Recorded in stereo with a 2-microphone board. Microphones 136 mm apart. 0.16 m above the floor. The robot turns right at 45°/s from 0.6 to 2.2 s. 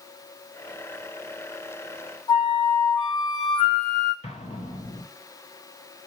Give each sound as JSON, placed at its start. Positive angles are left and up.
{"t": 2.3, "sound": "a flute", "side_deg": 30, "distance_m": 2.5}
{"t": 4.2, "sound": "an explosion", "side_deg": 50, "distance_m": 0.8}